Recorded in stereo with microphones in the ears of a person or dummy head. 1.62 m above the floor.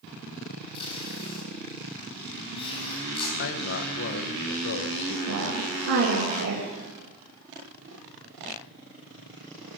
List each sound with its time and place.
0.7 s tape being pulled: 30° left (ahead or behind), 4 m
3.4 s a man speaking: 60° left (ahead or behind), 1.2 m
5.3 s a woman speaking: 80° right, 2.5 m